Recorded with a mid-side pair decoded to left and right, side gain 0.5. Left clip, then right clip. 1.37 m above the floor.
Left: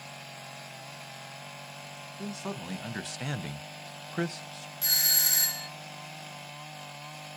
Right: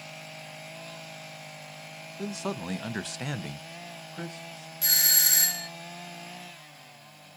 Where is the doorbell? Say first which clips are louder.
Right 2 dB; 20° right, 0.6 m.